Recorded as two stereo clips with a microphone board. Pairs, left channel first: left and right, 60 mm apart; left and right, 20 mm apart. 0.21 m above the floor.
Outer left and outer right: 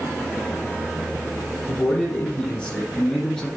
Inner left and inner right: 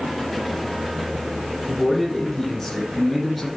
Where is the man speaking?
25° left (ahead or behind), 1.3 m; by 3.5 s 10° left (ahead or behind), 2.5 m.